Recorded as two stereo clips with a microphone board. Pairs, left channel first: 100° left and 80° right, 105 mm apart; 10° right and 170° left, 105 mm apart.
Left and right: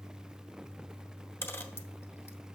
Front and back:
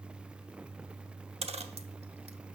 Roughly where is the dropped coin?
Behind.